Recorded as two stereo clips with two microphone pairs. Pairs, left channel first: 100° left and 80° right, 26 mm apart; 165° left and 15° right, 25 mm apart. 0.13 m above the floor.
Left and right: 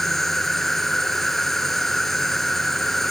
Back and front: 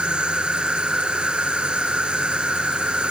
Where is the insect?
20° left.